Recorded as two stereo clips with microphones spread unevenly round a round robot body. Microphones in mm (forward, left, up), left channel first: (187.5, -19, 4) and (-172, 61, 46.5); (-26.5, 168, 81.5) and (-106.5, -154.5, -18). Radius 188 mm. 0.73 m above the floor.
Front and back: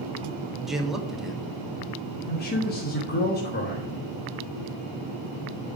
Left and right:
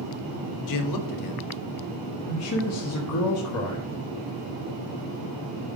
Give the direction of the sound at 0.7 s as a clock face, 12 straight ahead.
10 o'clock.